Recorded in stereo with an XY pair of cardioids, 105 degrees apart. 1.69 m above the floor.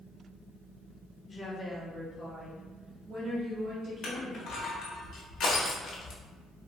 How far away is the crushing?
About 0.9 m.